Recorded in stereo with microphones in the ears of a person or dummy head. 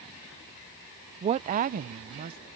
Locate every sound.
1.2 s a woman speaking: 30° right (ahead or behind); by 2.4 s 55° right (ahead or behind)